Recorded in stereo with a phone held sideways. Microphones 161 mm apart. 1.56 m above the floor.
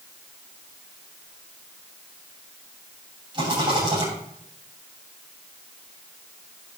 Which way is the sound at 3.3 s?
30° right (ahead or behind).